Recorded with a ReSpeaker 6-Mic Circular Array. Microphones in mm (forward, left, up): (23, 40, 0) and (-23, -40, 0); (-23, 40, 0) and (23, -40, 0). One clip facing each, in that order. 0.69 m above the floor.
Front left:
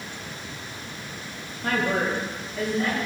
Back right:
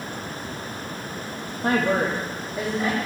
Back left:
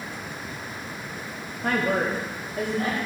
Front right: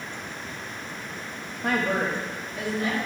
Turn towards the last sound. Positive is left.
turn(degrees=160)